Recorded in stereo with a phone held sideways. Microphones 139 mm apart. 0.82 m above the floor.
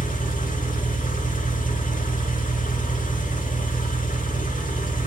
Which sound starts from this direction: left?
An engine running, at 0.0 s.